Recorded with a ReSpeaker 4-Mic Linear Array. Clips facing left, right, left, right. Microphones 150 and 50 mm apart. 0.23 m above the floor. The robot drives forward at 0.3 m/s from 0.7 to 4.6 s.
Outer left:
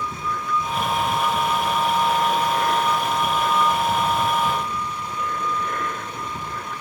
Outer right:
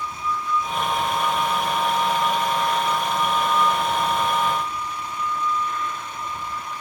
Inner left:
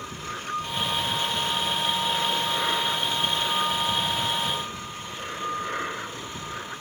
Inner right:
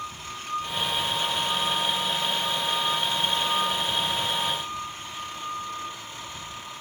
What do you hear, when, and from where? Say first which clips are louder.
0.0 s an aircraft: even, inner left 2 dB; 60° left (ahead or behind)